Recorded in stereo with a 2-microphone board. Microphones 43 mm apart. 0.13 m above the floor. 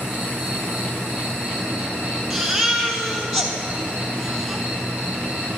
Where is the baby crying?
10° right (ahead or behind), 1.1 m.